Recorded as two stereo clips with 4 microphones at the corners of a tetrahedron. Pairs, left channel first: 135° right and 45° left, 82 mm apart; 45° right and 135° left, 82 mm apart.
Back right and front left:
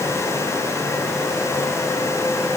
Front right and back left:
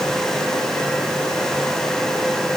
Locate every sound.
Only background noise.